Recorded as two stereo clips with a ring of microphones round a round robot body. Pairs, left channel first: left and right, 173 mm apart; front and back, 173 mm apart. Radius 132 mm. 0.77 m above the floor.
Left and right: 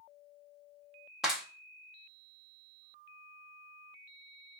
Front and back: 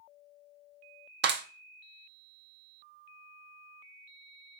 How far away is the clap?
About 0.6 m.